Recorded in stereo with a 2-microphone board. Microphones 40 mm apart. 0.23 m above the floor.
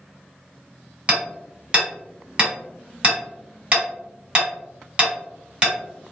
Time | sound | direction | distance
1.1 | hammering | 25° right (ahead or behind) | 1.4 m